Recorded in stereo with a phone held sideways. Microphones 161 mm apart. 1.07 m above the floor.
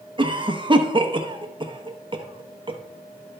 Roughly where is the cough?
Right.